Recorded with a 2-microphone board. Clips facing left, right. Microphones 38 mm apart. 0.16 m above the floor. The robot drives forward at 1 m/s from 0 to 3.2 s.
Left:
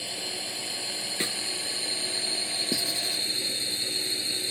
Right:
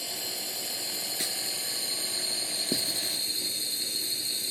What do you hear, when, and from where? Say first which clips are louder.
0.0 s a drone: left 2 dB; 30° left (ahead or behind); by 4.5 s 35° left (ahead or behind)
1.2 s a snare drum: left 6 dB; 40° left (ahead or behind)
2.7 s writing: left 1 dB; 40° right (ahead or behind); by 3.2 s 50° right (ahead or behind)